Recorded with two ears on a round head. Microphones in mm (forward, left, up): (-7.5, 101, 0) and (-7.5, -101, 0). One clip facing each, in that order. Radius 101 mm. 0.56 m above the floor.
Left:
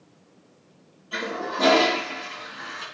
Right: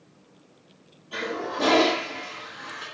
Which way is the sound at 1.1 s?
10° left (ahead or behind).